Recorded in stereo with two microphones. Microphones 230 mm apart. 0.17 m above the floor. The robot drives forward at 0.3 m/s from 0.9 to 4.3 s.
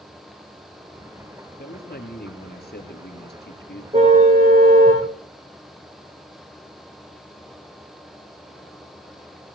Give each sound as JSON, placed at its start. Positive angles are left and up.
{"t": 1.6, "sound": "a man speaking", "side_deg": 40, "distance_m": 4.0}
{"t": 3.9, "sound": "a car horn", "side_deg": -30, "distance_m": 6.0}